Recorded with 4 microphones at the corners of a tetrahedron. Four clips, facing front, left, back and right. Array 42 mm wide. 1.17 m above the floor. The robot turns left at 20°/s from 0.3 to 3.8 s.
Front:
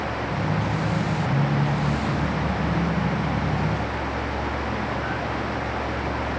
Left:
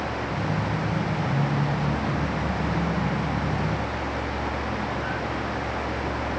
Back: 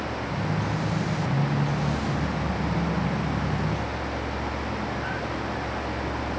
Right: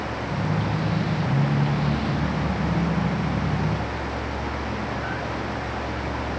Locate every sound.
Only background noise.